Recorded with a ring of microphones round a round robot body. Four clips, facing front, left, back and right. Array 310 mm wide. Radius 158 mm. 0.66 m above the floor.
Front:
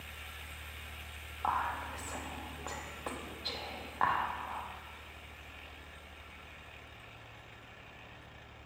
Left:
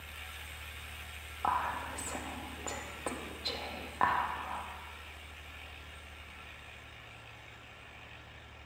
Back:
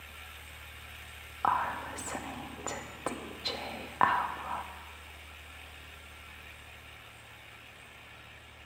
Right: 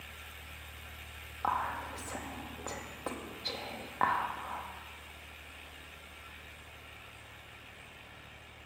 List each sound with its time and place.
1.4 s whispering: 175° right, 0.9 m